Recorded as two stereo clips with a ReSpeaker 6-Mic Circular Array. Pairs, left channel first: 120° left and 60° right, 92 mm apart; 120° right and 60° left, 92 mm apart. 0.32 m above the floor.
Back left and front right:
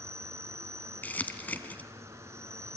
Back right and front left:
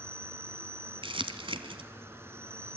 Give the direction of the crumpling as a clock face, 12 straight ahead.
10 o'clock.